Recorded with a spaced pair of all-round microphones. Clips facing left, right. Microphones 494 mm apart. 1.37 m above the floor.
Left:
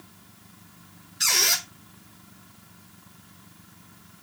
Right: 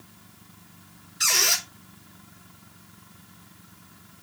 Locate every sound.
1.2 s a squeak: 5° left (ahead or behind), 4 m